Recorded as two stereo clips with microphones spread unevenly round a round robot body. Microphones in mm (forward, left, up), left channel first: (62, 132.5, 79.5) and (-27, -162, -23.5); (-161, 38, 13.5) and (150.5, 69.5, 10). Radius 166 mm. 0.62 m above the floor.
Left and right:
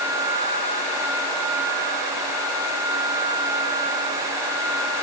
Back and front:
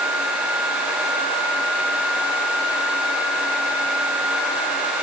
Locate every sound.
Only background noise.